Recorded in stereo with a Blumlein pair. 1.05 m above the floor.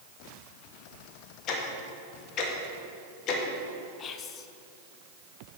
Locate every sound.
1.5 s ticking: 35° left, 1.4 m
4.0 s whispering: 30° left, 0.7 m